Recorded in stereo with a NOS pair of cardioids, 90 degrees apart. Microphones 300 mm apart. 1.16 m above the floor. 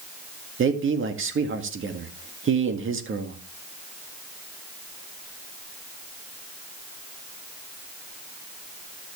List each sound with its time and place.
0.6 s a man speaking: 40° right, 2.0 m